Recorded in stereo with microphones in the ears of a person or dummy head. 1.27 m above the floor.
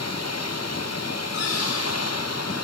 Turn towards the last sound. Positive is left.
turn(degrees=75)  # may be behind; listen again after turning